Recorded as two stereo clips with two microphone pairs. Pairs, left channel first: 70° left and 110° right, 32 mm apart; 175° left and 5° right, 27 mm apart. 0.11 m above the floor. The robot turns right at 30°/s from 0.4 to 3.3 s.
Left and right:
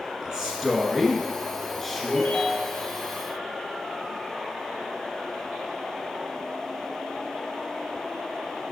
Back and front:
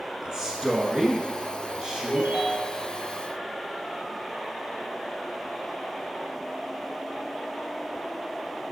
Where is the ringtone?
15° right, 1.8 m; by 2.8 s 10° left, 1.8 m.